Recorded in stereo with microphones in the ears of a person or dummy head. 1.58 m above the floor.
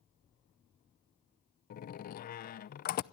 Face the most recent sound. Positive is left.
turn(degrees=45)  # may be behind; listen again after turning